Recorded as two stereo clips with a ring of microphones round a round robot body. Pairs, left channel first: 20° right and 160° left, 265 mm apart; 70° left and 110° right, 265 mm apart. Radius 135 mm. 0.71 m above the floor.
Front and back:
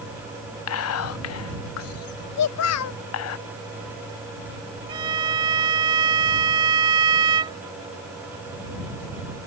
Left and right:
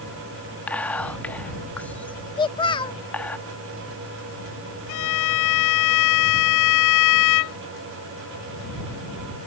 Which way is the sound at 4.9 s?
85° left.